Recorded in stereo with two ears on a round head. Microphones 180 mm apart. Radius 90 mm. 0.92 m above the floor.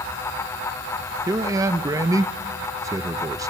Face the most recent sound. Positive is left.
turn(degrees=-15)  # may be behind; listen again after turning